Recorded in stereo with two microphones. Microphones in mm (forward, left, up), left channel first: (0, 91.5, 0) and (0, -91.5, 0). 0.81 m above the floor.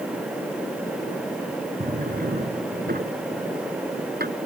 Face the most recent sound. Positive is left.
turn(degrees=-60)  # may be behind; listen again after turning